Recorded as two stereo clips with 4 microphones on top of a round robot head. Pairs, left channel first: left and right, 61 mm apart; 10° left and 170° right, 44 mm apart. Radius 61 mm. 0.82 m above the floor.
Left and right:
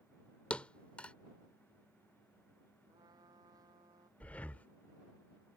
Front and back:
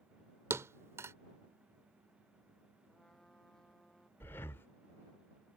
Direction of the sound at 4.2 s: 30° left.